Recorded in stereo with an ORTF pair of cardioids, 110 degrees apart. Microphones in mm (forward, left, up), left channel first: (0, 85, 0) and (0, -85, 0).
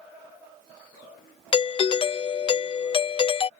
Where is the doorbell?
30° left.